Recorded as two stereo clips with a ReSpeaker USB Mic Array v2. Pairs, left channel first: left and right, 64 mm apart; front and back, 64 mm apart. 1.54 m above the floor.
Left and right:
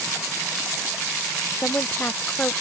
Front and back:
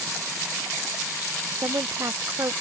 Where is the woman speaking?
150° left.